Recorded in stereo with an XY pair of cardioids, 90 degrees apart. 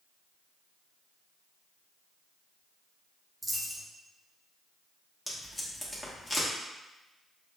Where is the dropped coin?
20° right, 1.7 m.